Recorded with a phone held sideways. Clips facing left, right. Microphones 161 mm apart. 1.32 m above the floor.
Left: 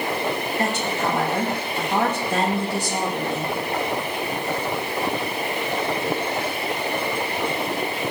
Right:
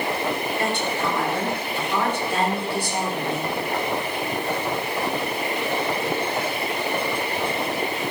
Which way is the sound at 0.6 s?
40° left (ahead or behind).